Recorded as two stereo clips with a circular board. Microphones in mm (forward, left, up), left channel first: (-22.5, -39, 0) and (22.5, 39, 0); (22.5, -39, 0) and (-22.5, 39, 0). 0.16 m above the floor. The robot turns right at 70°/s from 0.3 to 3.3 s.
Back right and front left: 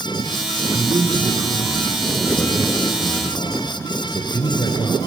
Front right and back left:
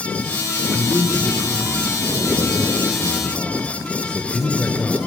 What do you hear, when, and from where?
0.7 s a man speaking: 40° left, 3 m; by 5.0 s 140° right, 3 m